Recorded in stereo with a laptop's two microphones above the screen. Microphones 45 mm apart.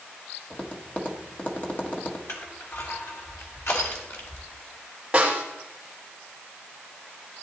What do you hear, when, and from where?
0.5 s tapping: 40° left (ahead or behind), 1.4 m
2.3 s crushing: 80° left, 3 m
5.1 s a snare drum: 15° right (ahead or behind), 3 m